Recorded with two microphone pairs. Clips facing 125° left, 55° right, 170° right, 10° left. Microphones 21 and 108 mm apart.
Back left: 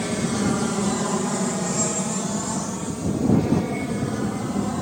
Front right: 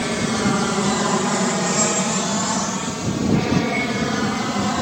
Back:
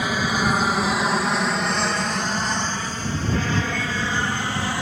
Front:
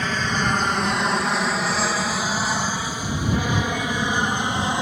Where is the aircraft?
100° right; by 4.8 s 55° right.